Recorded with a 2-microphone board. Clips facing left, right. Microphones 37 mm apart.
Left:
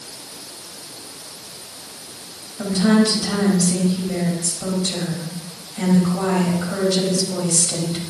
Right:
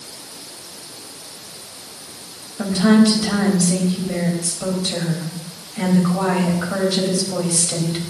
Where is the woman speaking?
15° right (ahead or behind), 2.5 m.